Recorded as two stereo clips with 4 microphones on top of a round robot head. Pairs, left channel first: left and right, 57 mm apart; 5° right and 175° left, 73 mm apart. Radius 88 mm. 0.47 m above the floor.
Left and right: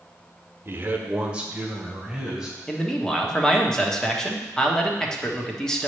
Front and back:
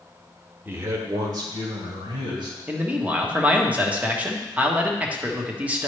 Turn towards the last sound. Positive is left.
turn(degrees=150)